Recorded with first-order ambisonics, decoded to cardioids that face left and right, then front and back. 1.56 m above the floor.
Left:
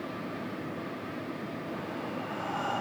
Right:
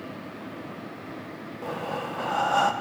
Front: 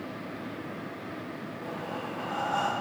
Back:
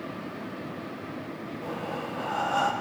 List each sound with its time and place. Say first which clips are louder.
1.6 s breathing: right 10 dB, back 3 dB; 105° right, 0.9 m